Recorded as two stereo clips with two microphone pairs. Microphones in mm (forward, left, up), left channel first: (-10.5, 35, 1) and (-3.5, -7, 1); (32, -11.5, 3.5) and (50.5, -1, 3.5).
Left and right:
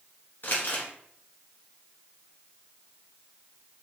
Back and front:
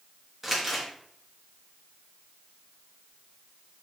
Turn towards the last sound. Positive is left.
turn(degrees=105)